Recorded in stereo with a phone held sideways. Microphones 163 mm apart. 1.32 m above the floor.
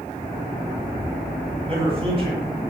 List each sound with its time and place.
1.7 s a man speaking: 35° right (ahead or behind), 9.5 m